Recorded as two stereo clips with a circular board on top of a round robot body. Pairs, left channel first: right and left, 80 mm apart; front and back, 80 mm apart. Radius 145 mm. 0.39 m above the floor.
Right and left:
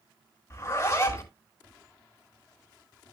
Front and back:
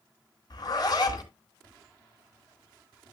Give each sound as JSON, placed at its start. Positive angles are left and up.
{"t": 0.5, "sound": "a zipper", "azimuth_deg": -35, "distance_m": 3.5}